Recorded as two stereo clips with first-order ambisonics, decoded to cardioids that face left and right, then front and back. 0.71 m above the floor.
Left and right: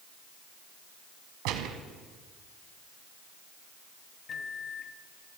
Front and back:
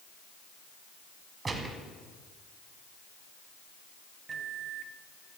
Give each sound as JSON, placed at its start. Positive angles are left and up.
{"t": 1.4, "sound": "a gunshot", "azimuth_deg": -110, "distance_m": 1.6}
{"t": 4.3, "sound": "a microwave", "azimuth_deg": 135, "distance_m": 0.8}